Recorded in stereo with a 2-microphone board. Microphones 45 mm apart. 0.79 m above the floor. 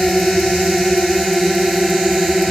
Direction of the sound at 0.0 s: Centre (ahead or behind).